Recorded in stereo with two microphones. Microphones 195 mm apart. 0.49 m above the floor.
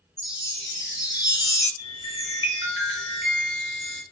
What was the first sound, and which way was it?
A chime, 20° left (ahead or behind).